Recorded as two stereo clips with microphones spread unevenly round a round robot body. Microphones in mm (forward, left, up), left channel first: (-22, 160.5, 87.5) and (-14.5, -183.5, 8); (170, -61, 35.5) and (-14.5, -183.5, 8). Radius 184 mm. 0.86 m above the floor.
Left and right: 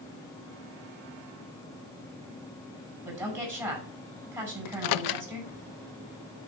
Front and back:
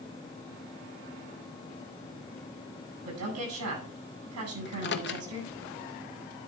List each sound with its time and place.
3.0 s a woman speaking: 170° right, 9 m
4.7 s a microwave: 65° left, 0.6 m